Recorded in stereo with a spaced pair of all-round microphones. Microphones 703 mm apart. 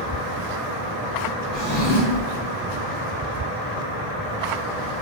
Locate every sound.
1.5 s a drawer: centre (ahead or behind), 1.5 m